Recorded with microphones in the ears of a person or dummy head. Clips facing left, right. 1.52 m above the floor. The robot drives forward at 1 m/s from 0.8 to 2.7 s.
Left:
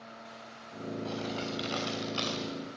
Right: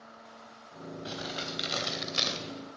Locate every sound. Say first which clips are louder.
1.1 s crumpling: left 2 dB; 20° right (ahead or behind), 3.5 m; by 2.4 s 35° right (ahead or behind), 2 m